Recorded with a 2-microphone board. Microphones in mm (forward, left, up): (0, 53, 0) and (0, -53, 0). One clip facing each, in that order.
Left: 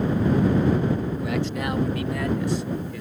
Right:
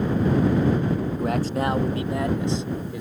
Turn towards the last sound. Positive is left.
turn(degrees=-20)  # may be behind; listen again after turning